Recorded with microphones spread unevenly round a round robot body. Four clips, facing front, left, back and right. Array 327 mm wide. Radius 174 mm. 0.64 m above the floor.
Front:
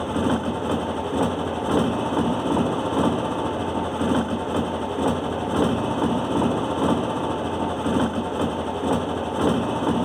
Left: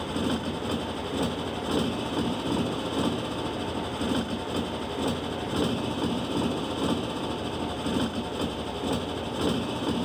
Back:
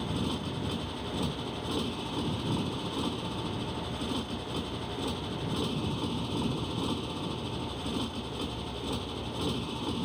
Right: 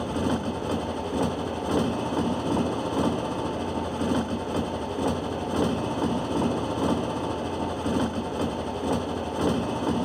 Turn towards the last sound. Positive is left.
turn(degrees=-5)